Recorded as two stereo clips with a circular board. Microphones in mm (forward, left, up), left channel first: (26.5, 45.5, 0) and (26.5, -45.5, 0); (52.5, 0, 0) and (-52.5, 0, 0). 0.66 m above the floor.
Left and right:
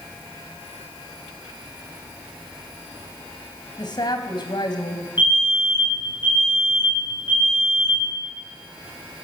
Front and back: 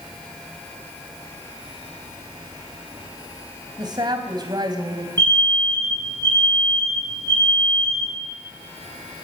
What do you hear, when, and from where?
3.8 s a woman speaking: 130° left, 3.5 m
5.2 s an alarm: 125° left, 6.5 m